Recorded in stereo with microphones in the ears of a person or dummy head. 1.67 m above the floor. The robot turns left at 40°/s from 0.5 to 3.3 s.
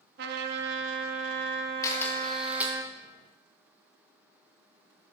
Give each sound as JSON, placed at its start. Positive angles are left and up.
{"t": 0.2, "sound": "a trumpet", "azimuth_deg": -65, "distance_m": 1.1}
{"t": 1.8, "sound": "a camera shutter", "azimuth_deg": 20, "distance_m": 1.7}